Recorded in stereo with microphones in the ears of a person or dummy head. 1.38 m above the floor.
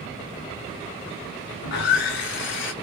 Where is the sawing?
65° left (ahead or behind), 0.6 m.